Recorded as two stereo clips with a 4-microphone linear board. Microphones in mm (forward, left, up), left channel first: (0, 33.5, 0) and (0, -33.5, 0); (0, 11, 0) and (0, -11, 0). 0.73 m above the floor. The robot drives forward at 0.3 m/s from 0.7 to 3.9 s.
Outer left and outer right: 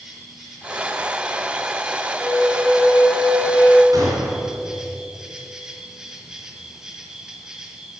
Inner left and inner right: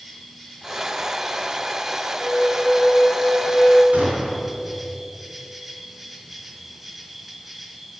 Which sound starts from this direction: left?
A flute, at 2.2 s.